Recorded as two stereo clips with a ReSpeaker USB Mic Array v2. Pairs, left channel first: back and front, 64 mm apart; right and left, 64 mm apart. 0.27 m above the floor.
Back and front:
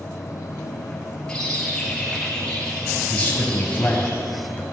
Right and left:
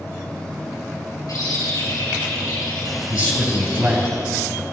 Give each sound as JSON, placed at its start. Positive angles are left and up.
{"t": 1.3, "sound": "a bird", "azimuth_deg": -105, "distance_m": 3.0}
{"t": 3.1, "sound": "a man speaking", "azimuth_deg": 135, "distance_m": 2.0}